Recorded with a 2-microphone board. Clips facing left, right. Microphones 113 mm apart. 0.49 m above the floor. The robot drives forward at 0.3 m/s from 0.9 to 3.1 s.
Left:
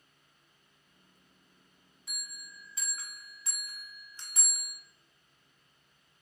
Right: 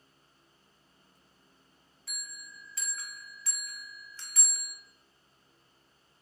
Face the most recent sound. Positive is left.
turn(degrees=20)  # may be behind; listen again after turning